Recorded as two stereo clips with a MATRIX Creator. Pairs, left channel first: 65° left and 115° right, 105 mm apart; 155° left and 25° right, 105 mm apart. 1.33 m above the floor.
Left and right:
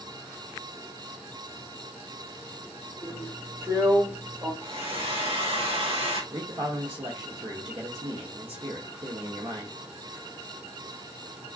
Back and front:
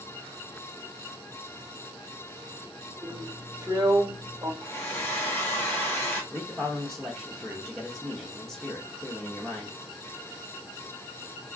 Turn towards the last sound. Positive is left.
turn(degrees=-120)